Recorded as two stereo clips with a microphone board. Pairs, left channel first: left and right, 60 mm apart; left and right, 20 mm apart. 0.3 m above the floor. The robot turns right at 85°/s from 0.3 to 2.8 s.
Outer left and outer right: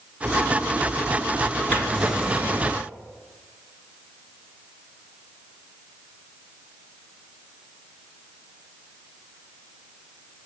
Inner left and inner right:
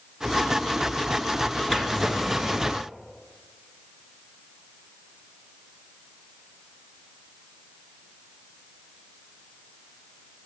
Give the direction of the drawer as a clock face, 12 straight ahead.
7 o'clock.